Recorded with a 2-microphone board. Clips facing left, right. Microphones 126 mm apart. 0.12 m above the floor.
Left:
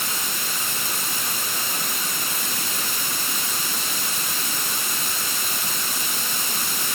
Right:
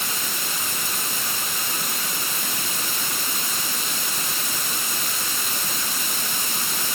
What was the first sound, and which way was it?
Only background noise.